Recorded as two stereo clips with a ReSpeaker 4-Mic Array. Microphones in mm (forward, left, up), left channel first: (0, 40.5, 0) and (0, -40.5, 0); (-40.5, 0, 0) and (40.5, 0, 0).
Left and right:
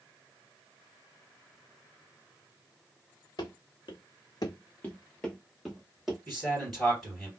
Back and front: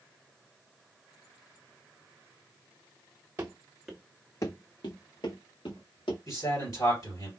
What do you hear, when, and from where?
3.4 s running footsteps: 65° left, 0.7 m; by 6.2 s 175° right, 1.4 m
6.3 s a man speaking: 175° left, 2.5 m